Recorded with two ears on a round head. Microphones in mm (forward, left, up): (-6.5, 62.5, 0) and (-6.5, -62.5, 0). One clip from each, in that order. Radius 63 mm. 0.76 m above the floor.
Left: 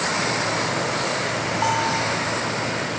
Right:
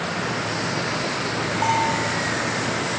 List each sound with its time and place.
1.6 s a bell: 30° left (ahead or behind), 7 m